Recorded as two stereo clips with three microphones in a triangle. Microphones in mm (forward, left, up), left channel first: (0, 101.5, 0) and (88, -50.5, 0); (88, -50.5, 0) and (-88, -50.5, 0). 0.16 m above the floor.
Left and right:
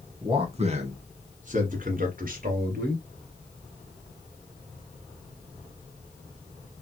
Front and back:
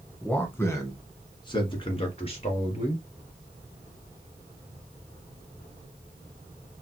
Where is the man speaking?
75° right, 1.4 m; by 3.0 s 45° right, 2.5 m.